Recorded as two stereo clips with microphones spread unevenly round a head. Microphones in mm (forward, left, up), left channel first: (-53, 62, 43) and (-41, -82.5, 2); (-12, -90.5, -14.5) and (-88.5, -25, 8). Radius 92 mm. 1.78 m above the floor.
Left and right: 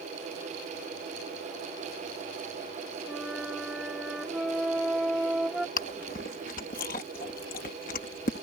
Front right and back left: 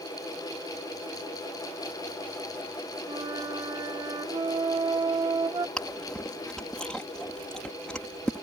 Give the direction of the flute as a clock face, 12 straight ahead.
6 o'clock.